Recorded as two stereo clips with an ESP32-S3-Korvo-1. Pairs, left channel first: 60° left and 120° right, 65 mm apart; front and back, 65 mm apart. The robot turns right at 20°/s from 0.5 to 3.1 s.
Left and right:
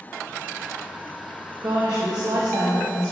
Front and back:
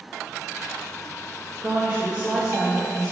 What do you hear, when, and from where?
1.6 s a woman speaking: 115° right, 1.4 m; by 3.1 s 85° right, 1.4 m